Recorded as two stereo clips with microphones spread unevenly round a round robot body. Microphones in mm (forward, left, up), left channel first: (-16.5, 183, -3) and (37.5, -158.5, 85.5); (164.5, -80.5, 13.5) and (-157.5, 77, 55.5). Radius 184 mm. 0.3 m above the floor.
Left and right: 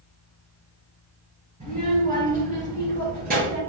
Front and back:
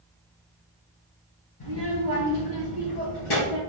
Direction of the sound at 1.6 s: 10° right.